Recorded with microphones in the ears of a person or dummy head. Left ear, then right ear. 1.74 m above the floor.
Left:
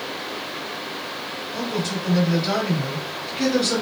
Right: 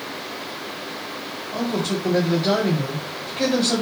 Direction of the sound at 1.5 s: 20° right (ahead or behind).